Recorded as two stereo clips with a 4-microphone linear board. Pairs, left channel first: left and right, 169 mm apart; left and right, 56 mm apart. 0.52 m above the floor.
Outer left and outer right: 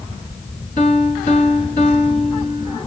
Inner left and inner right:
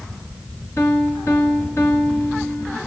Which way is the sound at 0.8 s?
55° left (ahead or behind).